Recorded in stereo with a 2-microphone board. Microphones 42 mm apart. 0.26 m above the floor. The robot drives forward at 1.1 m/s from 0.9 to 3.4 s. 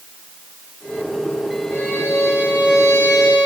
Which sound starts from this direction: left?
A violin, at 1.7 s.